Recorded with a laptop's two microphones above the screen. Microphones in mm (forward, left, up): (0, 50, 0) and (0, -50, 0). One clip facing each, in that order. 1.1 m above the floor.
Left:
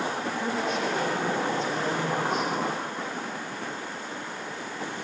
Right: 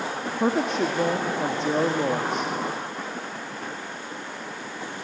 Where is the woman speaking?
65° right (ahead or behind), 1.8 m.